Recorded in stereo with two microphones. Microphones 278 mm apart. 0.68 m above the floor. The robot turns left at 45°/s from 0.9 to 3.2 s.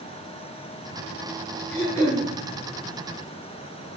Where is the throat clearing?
40° left (ahead or behind), 4.5 m; by 2.2 s 65° left (ahead or behind), 4.5 m.